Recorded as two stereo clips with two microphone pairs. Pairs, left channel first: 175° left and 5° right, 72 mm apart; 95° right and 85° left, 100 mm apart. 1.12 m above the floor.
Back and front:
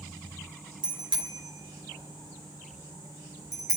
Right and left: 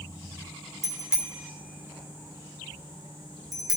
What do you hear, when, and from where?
0.8 s a bicycle bell: 5° right, 2.5 m; by 3.8 s 35° left, 3 m